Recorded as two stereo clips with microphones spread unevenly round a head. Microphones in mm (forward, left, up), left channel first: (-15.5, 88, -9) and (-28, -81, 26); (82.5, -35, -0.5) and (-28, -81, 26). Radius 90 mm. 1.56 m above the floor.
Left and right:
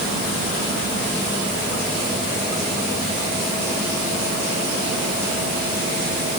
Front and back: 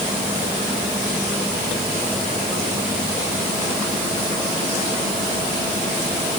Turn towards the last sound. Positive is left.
No sound to turn to.